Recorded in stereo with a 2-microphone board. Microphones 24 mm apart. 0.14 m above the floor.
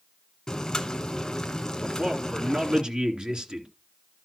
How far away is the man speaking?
About 2 m.